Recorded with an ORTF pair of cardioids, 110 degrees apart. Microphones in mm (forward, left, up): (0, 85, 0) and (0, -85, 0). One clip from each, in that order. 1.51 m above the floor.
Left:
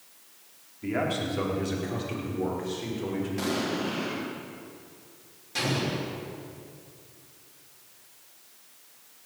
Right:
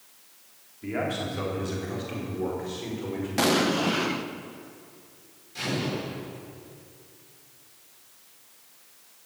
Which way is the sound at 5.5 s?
60° left.